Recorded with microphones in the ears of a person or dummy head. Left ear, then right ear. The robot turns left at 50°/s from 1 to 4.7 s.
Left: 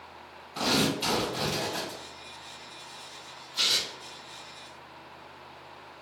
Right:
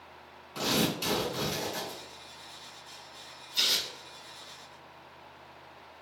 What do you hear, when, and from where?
0.6 s tearing paper: 135° right, 1.6 m; by 2.0 s 175° left, 1.6 m
3.5 s tearing paper: 25° right (ahead or behind), 1.2 m; by 3.9 s 45° right (ahead or behind), 1.2 m